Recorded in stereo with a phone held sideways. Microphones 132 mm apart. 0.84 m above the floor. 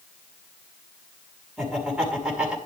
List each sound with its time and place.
1.6 s laughter: 10° right (ahead or behind), 6 m